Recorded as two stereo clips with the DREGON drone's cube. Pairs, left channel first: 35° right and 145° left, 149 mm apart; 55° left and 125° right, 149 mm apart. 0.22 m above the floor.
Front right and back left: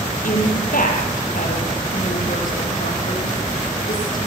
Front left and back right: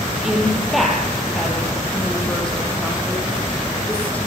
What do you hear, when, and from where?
0.2 s a woman speaking: 35° right, 5 m; by 4.2 s 25° right, 7 m